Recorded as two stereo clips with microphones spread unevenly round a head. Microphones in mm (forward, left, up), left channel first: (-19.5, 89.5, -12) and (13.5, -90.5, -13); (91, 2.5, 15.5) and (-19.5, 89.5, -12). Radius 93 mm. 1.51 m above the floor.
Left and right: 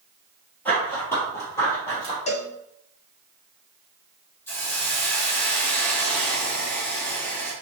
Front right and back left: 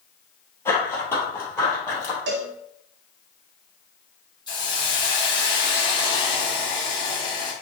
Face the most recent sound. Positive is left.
turn(degrees=20)